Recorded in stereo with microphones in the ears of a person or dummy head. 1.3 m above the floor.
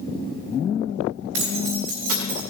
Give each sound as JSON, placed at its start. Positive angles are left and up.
{"t": 1.3, "sound": "keys jangling", "side_deg": -70, "distance_m": 3.0}